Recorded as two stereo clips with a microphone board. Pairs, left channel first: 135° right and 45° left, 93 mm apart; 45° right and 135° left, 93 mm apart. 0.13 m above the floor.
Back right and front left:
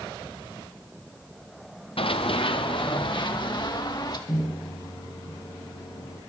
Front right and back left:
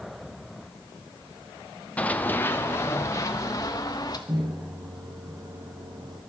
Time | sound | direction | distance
2.0 | running footsteps | 120° right | 1.6 m
4.3 | a microwave | 175° left | 5 m